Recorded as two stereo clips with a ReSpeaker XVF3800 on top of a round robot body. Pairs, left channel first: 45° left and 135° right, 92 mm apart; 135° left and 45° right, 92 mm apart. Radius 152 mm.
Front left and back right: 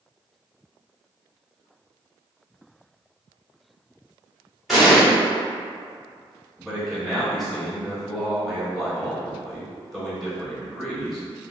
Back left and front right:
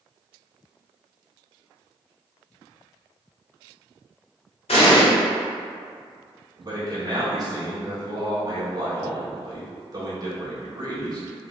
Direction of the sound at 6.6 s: 45° right.